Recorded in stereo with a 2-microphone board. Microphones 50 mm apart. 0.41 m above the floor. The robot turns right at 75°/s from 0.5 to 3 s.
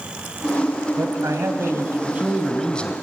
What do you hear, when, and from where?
1.0 s a man speaking: 115° right, 2 m; by 2.9 s 30° left, 2 m